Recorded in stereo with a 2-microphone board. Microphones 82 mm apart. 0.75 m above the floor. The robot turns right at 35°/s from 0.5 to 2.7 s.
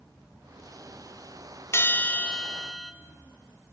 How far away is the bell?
About 1.0 m.